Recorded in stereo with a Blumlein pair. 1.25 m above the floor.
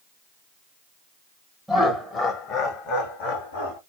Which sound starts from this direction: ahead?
Laughter, at 1.7 s.